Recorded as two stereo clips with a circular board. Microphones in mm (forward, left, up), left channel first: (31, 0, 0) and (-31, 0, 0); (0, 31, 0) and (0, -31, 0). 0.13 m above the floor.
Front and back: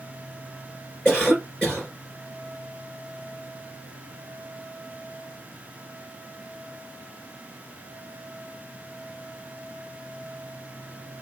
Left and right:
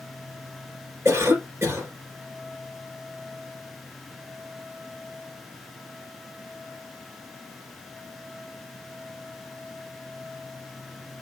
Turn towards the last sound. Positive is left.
turn(degrees=-75)